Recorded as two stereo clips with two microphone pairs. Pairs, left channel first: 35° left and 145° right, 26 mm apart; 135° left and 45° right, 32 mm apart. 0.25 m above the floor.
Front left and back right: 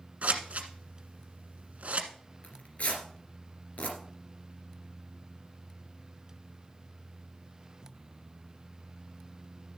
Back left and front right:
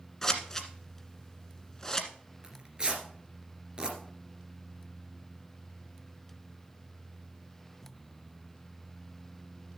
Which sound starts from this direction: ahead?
Tearing paper, at 2.4 s.